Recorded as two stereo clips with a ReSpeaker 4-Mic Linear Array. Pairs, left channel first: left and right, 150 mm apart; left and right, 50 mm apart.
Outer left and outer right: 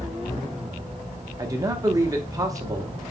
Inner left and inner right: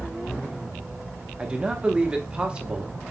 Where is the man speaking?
20° right (ahead or behind), 0.9 m.